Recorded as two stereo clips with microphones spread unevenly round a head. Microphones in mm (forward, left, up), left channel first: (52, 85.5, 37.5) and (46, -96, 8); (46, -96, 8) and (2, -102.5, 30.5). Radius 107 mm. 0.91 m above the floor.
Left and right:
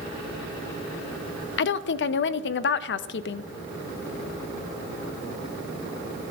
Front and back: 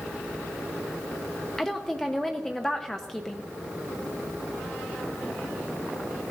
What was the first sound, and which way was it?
A woman speaking, 75° left.